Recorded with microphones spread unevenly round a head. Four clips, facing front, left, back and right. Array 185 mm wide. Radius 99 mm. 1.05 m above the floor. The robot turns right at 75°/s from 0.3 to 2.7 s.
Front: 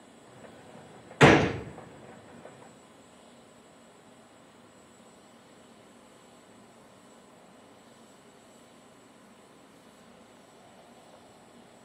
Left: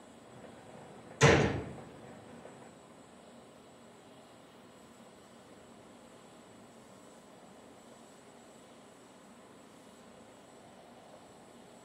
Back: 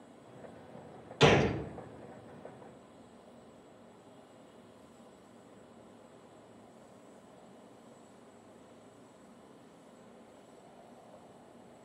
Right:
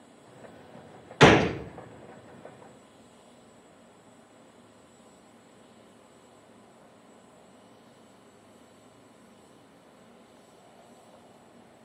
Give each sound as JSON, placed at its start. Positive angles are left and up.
{"t": 1.2, "sound": "a gunshot", "azimuth_deg": -60, "distance_m": 0.6}